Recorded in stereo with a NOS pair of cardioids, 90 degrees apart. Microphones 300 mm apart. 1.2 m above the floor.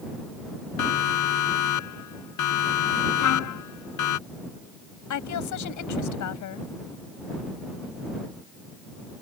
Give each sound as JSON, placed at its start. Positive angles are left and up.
{"t": 0.8, "sound": "a siren", "azimuth_deg": 70}
{"t": 3.2, "sound": "a trumpet", "azimuth_deg": 65}
{"t": 5.1, "sound": "a woman speaking", "azimuth_deg": 70}